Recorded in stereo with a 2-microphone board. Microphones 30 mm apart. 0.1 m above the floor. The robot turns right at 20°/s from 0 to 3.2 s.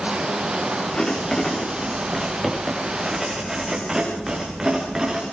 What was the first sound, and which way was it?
Writing, 155° left.